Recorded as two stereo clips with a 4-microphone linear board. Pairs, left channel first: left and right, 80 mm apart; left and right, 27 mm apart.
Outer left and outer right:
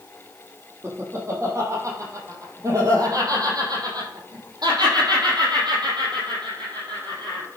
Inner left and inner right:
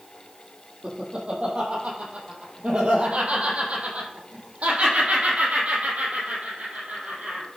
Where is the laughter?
35° right (ahead or behind), 5 m; by 7.5 s 75° right (ahead or behind), 4.5 m.